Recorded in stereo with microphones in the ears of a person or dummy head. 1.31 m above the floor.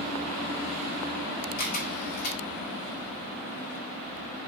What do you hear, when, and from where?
1.6 s a camera shutter: 55° left (ahead or behind), 2 m